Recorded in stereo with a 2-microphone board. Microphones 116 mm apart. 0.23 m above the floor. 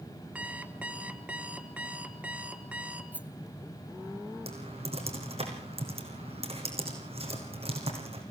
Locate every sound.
0.3 s an alarm clock: 10° right (ahead or behind), 1.2 m
3.1 s a rattle: 15° right (ahead or behind), 1.5 m
4.5 s typing on a keyboard: 60° right (ahead or behind), 4.5 m